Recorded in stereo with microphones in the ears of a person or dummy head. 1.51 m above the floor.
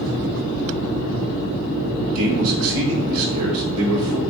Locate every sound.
2.1 s a man speaking: 80° right, 1.7 m